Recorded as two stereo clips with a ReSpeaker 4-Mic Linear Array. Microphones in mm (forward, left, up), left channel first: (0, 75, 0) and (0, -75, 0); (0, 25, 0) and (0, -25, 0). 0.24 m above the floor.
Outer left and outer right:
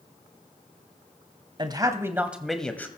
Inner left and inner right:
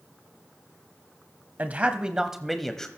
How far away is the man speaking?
About 1.1 m.